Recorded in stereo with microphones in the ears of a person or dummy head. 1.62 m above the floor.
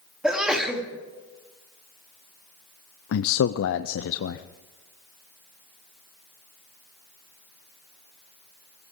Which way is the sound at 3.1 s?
80° left.